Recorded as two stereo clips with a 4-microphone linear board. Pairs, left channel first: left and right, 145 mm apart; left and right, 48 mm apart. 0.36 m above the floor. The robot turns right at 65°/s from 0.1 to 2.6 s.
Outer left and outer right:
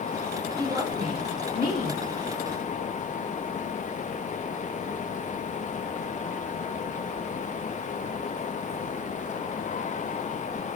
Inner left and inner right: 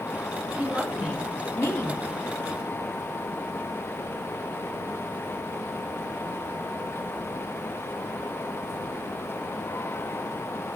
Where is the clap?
No clap in this recording.